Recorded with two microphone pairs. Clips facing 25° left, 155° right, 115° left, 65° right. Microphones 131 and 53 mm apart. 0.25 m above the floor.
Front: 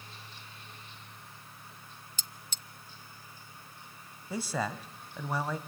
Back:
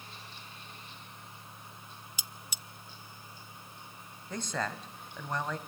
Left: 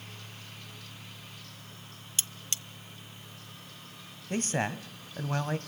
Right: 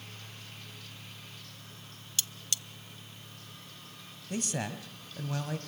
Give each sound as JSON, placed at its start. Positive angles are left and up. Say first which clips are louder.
{"t": 2.2, "sound": "cutlery clinking", "louder": "back 2 dB, even", "azimuth_deg": 130, "distance_m": 0.5}
{"t": 4.3, "sound": "a man speaking", "louder": "front 2 dB, left 4 dB", "azimuth_deg": 100, "distance_m": 1.5}